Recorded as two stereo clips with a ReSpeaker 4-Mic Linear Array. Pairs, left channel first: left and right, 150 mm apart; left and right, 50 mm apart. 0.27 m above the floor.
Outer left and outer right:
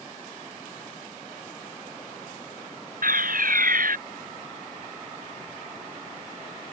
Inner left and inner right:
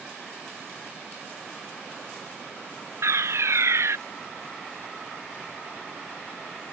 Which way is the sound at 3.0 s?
70° right (ahead or behind).